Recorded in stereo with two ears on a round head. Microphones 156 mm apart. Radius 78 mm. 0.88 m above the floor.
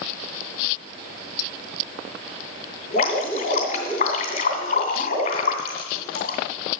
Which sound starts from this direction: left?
Dripping, at 2.9 s.